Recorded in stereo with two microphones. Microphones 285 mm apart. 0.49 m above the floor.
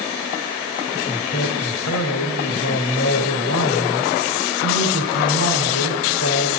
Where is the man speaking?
60° left (ahead or behind), 2.5 m.